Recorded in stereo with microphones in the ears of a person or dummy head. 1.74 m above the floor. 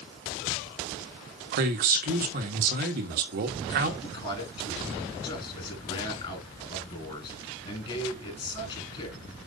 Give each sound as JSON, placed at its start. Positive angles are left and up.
{"t": 1.5, "sound": "a man speaking", "side_deg": -55, "distance_m": 1.3}
{"t": 4.0, "sound": "a man speaking", "side_deg": 30, "distance_m": 5.0}